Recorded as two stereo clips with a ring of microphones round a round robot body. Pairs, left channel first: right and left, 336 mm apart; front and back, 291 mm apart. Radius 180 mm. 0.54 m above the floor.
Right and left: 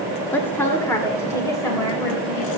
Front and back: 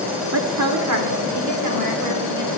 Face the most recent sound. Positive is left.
turn(degrees=-170)